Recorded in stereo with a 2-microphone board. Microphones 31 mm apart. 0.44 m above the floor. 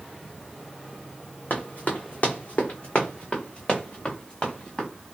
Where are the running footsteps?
65° left (ahead or behind), 1.1 m; by 4.9 s 15° left (ahead or behind), 2 m.